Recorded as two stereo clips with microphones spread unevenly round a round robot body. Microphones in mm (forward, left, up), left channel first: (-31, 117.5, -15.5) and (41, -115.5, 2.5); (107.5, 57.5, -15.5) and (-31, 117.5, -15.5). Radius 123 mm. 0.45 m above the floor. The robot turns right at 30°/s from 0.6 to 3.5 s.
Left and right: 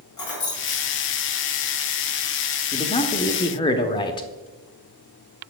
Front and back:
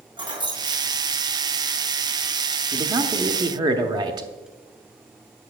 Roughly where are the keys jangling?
Left.